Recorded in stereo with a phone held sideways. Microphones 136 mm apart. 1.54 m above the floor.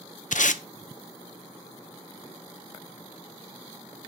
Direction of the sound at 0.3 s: 65° left (ahead or behind).